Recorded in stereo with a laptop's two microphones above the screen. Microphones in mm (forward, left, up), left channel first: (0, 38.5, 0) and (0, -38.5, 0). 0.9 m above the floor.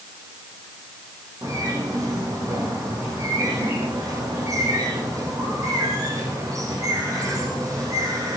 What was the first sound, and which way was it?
A bird, 45° right (ahead or behind).